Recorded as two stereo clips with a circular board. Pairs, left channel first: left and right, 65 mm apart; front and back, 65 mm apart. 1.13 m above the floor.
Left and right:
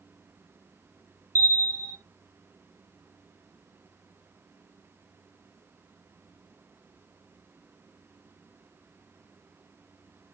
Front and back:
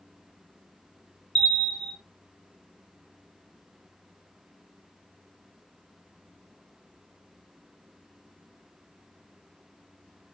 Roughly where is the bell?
Right.